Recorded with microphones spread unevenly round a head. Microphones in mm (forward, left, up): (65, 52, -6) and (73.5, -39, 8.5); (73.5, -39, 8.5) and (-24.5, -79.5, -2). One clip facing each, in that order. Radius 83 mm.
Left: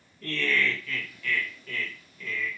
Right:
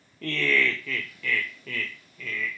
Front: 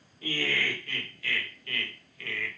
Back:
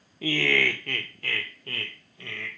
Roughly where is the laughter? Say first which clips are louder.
Right 2 dB, back 6 dB; behind right.